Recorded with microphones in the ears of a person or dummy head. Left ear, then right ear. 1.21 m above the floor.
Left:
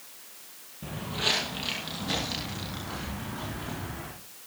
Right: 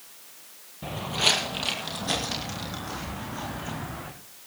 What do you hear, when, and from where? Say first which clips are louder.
0.8 s footsteps: right 5 dB; 25° right (ahead or behind), 1.8 m; by 4.1 s 20° right (ahead or behind), 4.5 m